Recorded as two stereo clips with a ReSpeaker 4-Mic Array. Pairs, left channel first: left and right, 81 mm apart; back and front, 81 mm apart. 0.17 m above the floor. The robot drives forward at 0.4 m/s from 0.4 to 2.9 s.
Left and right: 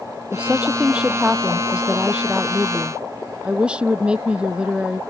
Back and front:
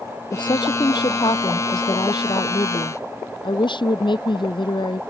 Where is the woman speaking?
165° right; by 5.0 s 170° right.